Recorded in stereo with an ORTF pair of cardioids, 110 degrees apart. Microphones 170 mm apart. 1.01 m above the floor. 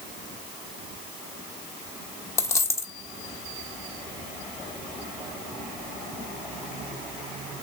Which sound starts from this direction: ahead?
A dropped coin, at 2.4 s.